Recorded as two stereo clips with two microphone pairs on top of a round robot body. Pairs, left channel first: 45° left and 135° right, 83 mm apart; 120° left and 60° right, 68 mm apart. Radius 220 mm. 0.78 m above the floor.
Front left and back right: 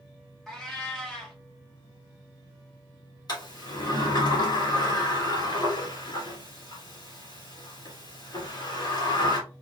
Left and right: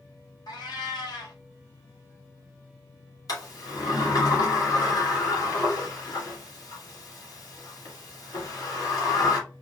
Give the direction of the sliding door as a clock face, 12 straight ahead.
9 o'clock.